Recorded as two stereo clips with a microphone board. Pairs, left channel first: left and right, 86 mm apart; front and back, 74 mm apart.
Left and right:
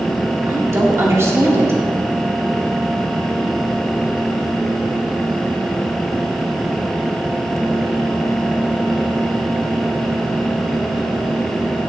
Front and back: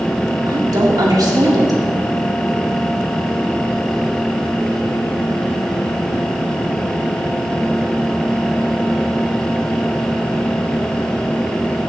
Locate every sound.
0.5 s a woman speaking: 150° right, 2 m